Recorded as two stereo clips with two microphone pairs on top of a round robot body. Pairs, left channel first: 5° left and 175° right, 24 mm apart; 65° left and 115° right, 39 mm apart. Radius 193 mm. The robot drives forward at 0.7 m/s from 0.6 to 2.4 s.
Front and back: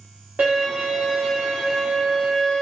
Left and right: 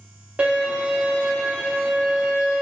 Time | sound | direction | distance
0.4 | a violin | 170° right | 0.7 m